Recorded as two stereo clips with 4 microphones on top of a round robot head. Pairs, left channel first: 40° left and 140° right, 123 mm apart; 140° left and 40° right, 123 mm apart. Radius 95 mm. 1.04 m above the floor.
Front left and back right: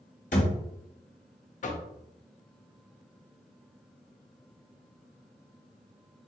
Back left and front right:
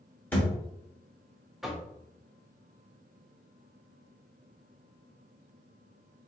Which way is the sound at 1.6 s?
50° left.